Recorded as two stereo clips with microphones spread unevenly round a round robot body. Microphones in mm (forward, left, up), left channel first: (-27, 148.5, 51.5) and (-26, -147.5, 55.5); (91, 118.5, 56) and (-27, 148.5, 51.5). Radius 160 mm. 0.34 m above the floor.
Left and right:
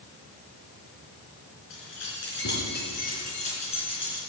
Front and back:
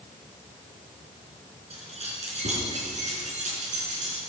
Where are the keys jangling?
135° left, 3.5 m; by 4.2 s 165° left, 3.5 m.